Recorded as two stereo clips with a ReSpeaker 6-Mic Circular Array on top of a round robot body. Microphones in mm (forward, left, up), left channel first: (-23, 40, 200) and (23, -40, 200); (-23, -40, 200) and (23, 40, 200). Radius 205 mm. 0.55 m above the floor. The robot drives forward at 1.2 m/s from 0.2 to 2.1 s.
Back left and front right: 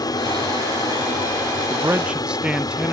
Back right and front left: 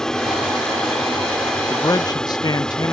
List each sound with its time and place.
0.0 s an aircraft: 155° left; by 2.9 s 160° left
1.7 s a man speaking: 70° right; by 2.9 s 135° right